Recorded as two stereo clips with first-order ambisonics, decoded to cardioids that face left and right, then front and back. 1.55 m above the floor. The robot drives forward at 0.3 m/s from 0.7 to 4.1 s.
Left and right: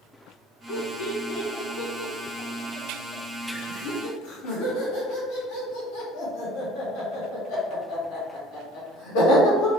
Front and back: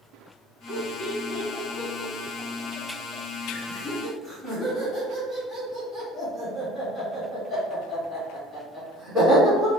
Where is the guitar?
No guitar in this recording.